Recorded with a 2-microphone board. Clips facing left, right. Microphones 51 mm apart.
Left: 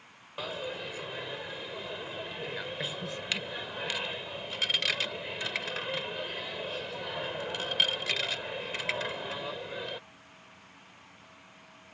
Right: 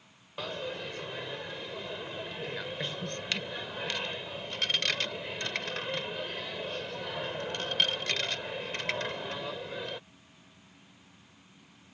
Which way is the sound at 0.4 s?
5° left (ahead or behind).